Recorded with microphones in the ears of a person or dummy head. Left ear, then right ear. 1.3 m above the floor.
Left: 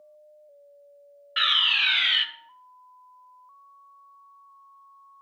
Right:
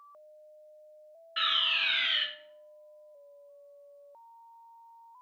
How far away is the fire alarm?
About 0.9 m.